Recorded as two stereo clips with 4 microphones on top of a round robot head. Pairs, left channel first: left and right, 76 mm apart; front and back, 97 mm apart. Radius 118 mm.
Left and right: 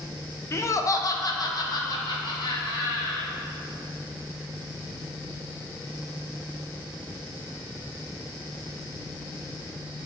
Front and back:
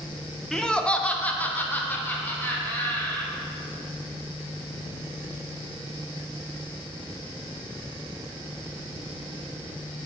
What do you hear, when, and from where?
0.5 s laughter: 80° left, 0.9 m; by 3.3 s 70° left, 3 m